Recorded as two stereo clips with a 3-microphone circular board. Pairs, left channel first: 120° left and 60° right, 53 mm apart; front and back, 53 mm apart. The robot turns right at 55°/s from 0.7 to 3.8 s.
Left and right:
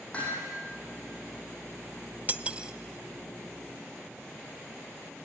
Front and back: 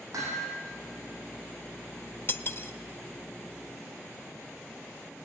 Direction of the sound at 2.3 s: 15° right.